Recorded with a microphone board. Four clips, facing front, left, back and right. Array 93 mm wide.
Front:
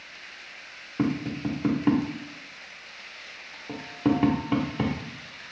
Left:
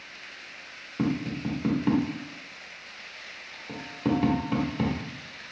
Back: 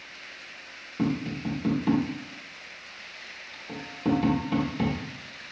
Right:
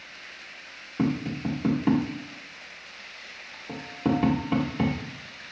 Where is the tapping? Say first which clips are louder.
Right 1 dB, front 1 dB; 15° right, 0.9 m.